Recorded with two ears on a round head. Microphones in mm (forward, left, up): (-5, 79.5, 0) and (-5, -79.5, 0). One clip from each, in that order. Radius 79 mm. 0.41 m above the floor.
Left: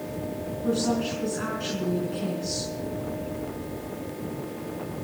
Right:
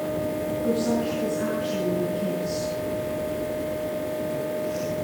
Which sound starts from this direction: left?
A woman speaking, at 0.6 s.